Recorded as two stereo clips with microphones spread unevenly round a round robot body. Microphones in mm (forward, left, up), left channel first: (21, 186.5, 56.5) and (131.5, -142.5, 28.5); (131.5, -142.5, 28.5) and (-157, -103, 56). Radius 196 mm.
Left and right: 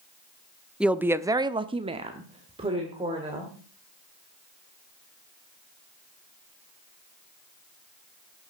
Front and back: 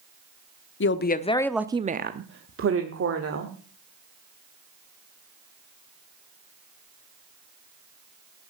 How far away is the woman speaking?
About 0.8 m.